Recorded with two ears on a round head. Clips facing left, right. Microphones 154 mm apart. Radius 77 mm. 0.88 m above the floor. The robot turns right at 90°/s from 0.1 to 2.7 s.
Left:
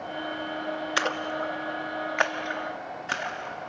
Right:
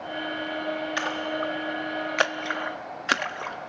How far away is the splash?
About 1.1 m.